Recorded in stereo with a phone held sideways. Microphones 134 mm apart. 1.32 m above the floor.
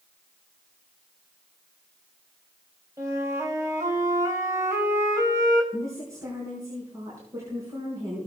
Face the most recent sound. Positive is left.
turn(degrees=-25)  # may be behind; listen again after turning